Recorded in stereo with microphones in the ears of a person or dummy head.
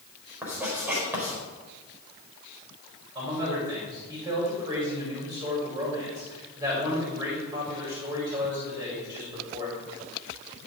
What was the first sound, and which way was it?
Writing, 10° right (ahead or behind).